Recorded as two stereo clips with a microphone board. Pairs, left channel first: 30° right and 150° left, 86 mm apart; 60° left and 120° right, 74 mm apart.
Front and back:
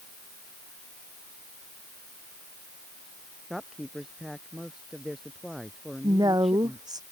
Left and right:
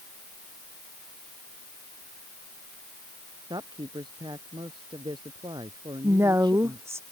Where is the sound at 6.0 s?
170° right.